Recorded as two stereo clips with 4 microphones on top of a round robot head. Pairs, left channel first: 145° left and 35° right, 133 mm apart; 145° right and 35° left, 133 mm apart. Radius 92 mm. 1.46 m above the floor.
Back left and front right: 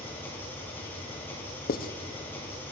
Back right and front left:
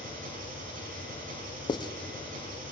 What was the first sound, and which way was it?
An engine running, 65° left.